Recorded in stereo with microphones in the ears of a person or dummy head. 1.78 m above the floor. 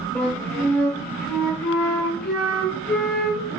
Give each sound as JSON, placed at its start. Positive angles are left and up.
{"t": 0.1, "sound": "a flute", "side_deg": 5, "distance_m": 0.7}